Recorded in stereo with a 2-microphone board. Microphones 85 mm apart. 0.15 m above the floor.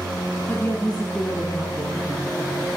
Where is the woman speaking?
30° left (ahead or behind), 1.1 m; by 2.8 s 15° right (ahead or behind), 2 m.